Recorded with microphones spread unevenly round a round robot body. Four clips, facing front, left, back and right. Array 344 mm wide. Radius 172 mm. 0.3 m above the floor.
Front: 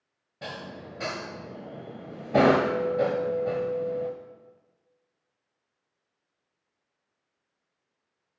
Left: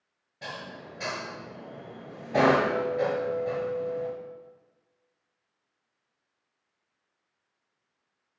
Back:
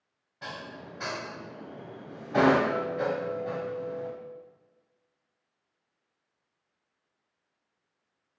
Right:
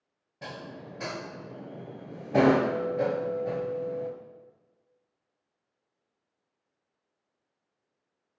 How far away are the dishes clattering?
About 1.2 m.